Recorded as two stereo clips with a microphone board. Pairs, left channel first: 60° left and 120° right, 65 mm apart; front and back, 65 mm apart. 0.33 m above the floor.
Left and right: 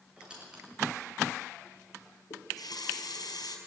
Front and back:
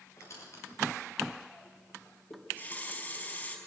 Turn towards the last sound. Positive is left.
turn(degrees=60)